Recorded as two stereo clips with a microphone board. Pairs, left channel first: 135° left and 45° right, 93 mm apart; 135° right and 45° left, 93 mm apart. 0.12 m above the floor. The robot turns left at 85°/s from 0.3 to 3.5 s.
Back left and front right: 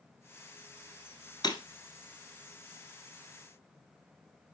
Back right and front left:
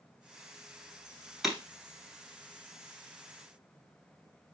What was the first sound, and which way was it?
Breaking glass, 135° left.